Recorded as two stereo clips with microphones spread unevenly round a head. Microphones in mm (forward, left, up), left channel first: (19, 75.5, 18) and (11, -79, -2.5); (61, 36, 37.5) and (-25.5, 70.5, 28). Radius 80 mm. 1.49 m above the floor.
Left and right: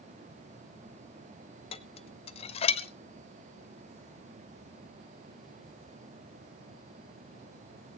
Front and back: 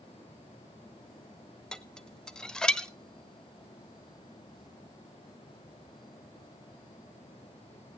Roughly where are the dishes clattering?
Ahead left.